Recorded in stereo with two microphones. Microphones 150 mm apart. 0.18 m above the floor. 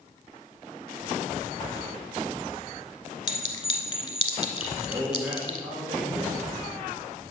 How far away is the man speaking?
About 2.5 m.